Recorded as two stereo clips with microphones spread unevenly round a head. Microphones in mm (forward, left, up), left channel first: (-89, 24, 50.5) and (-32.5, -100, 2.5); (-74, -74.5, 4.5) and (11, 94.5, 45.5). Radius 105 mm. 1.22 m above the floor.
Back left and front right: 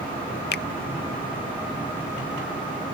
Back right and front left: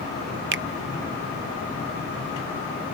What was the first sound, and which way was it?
A finger snap, 90° left.